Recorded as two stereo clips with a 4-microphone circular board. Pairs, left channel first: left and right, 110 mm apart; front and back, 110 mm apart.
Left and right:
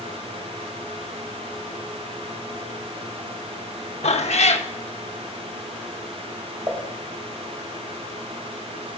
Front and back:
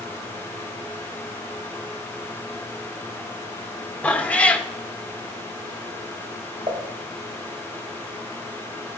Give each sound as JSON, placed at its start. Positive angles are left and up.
{"t": 4.0, "sound": "a cat meowing", "azimuth_deg": 80, "distance_m": 0.6}
{"t": 6.7, "sound": "dishes clattering", "azimuth_deg": -150, "distance_m": 2.0}